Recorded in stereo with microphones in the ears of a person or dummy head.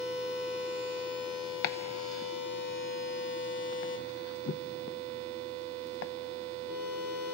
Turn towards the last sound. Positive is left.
turn(degrees=60)  # may be behind; listen again after turning